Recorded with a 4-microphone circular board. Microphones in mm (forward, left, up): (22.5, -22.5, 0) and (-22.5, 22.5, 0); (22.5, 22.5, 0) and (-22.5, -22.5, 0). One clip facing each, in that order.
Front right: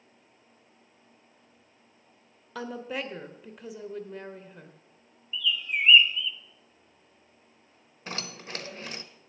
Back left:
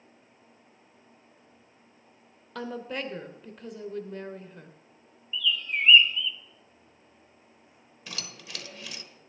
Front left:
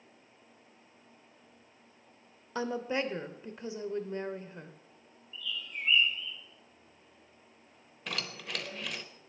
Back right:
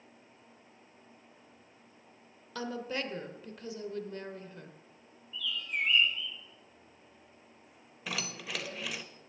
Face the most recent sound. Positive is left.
turn(degrees=-50)